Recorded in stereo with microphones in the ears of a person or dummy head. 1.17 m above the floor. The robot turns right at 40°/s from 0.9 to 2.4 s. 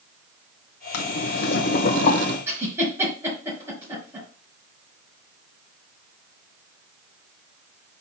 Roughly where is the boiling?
Left.